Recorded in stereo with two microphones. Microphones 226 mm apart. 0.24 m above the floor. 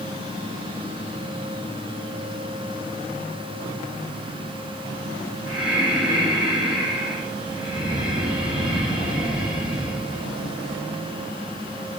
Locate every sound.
5.5 s breathing: 5° right (ahead or behind), 1.5 m